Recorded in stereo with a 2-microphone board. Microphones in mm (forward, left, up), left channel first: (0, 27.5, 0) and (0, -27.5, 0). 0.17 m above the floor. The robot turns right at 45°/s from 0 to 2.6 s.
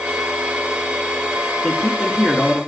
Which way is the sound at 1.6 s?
160° left.